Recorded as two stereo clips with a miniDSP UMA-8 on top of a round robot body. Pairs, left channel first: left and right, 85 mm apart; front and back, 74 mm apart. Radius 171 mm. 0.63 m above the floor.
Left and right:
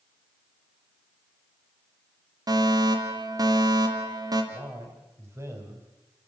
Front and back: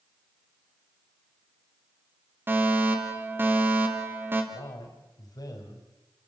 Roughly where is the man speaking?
Ahead right.